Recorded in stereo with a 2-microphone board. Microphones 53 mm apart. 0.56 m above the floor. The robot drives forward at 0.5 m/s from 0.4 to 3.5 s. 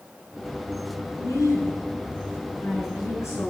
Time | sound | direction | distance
1.2 | a woman speaking | 65° left (ahead or behind) | 7 m